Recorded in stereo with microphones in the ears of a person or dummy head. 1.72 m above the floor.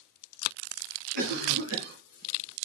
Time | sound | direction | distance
1.1 | a cough | 60° right (ahead or behind) | 0.9 m